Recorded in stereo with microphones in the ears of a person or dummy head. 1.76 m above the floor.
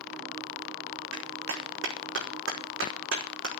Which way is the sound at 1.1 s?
70° right (ahead or behind).